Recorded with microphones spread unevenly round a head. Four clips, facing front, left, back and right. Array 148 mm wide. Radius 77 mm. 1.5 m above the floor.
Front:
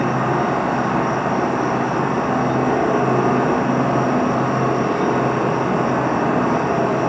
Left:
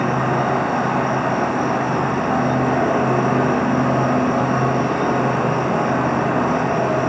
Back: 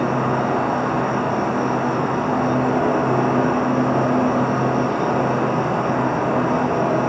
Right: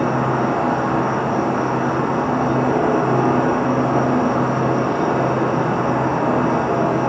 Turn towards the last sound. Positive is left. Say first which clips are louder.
# right 1 dB, front 1 dB
turn(degrees=-95)